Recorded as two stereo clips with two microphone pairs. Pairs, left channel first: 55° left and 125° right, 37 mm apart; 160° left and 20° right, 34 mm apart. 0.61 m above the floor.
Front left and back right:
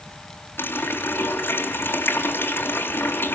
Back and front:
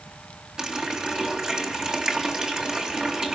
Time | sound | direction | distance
0.6 | a running tap | 45° left | 3 m